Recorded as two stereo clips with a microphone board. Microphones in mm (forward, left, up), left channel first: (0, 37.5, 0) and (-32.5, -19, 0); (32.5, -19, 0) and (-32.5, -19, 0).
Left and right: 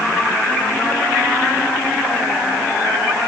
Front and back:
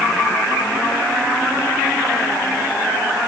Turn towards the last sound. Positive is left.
No sound to turn to.